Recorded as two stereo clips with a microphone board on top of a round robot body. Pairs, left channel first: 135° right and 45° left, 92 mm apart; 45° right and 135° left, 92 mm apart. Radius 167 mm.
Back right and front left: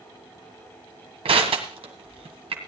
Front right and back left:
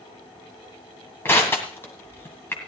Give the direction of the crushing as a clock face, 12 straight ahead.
11 o'clock.